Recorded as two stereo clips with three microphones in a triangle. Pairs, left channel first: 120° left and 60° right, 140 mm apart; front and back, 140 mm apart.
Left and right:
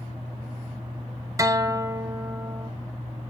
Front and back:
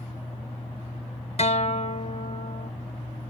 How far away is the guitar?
About 0.6 m.